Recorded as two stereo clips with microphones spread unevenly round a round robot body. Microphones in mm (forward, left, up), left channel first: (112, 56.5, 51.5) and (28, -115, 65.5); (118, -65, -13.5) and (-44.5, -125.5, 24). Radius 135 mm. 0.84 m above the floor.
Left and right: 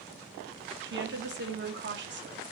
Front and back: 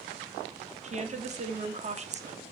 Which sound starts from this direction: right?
A woman speaking, at 0.8 s.